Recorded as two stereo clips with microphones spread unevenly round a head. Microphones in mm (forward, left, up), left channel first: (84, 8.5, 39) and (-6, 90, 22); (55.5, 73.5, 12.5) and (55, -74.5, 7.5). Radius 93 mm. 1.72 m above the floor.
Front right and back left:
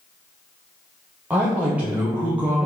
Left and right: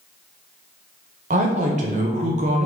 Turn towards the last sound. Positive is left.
turn(degrees=-135)